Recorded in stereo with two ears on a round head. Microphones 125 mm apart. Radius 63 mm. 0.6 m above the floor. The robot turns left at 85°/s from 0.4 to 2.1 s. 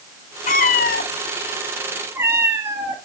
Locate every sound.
0.5 s a cat meowing: 120° left, 0.9 m; by 3.0 s 20° right, 0.9 m